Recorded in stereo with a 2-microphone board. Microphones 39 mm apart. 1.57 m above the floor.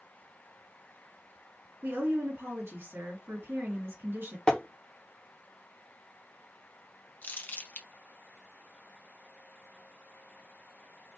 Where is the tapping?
25° left (ahead or behind), 0.7 m.